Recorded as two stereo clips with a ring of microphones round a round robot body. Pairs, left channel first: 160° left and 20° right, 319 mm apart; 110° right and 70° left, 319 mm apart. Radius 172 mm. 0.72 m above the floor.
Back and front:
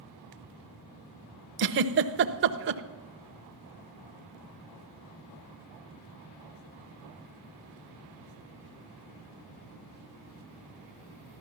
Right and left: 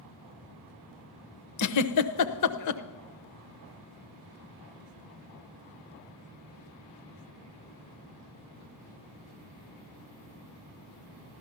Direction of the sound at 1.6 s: 75° right.